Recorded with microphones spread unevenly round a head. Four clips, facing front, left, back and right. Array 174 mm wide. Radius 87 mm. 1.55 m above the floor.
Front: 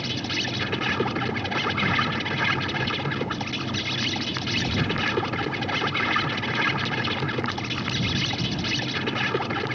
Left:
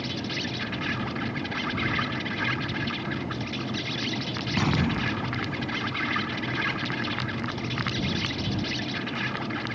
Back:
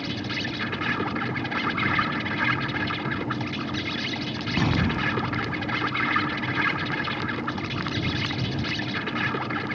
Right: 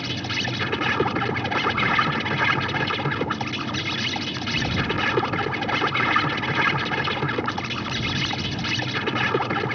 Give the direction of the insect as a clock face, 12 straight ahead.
2 o'clock.